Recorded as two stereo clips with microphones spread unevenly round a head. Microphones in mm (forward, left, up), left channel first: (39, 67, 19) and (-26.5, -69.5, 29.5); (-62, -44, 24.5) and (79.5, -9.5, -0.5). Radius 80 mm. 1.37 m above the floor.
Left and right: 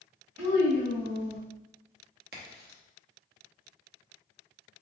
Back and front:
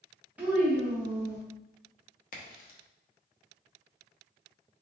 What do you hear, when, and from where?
0.4 s a child speaking: 70° right, 0.9 m
2.3 s a crack: 145° right, 0.9 m